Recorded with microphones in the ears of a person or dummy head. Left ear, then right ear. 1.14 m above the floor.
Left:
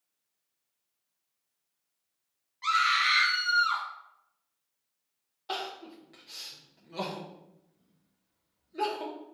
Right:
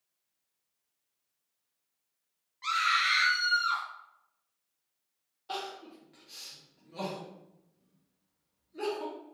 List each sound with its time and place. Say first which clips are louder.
2.6 s a scream: left 2 dB; 5° left (ahead or behind), 0.7 m
5.5 s crying: left 2 dB; 30° left (ahead or behind), 0.7 m